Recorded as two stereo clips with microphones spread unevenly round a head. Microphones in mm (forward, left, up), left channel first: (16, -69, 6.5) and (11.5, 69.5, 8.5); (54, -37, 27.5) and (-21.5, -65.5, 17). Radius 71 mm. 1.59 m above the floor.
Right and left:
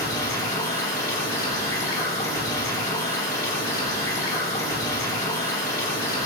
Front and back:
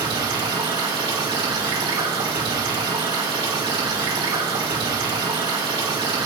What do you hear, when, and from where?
0.0 s running water: 155° right, 4.5 m